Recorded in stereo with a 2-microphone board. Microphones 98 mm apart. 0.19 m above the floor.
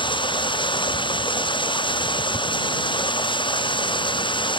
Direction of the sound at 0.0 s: 55° left (ahead or behind).